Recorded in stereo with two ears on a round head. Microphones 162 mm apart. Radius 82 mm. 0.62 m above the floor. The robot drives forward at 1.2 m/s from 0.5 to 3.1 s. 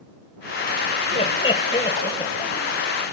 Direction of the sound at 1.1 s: 35° left (ahead or behind).